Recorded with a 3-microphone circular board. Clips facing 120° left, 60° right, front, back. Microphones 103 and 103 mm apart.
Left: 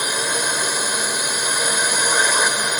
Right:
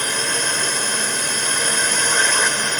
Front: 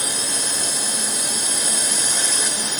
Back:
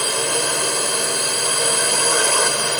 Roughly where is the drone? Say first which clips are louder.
Left 1 dB, back 7 dB; behind.